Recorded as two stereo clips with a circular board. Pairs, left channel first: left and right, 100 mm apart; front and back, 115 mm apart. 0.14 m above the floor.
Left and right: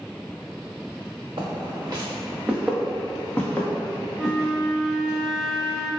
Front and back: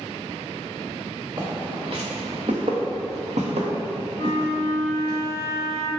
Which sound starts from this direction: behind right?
Footsteps, at 1.4 s.